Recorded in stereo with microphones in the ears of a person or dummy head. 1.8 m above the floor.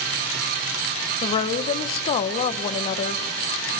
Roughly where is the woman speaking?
Left.